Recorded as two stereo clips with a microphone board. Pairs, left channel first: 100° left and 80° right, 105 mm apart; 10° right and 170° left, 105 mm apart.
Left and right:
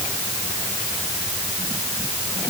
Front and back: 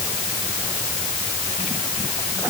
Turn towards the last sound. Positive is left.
No sound to turn to.